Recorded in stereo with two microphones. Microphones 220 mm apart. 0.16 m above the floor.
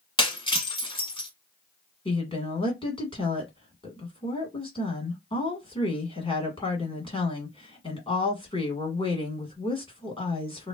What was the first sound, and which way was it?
Breaking glass, 20° left (ahead or behind).